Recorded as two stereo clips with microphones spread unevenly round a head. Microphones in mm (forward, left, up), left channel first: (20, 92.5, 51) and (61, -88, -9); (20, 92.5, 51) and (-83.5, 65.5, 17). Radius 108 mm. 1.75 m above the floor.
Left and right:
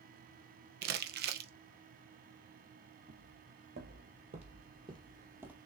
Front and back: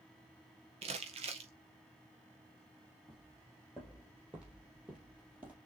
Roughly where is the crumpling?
Behind right.